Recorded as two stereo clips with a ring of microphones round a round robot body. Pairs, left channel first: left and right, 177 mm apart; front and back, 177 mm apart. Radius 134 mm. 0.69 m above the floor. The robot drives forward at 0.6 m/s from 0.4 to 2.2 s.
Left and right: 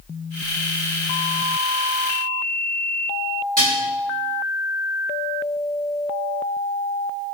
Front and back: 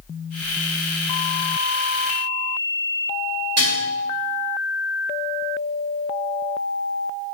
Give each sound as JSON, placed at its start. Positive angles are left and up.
{"t": 3.6, "sound": "dishes clattering", "azimuth_deg": -145, "distance_m": 1.6}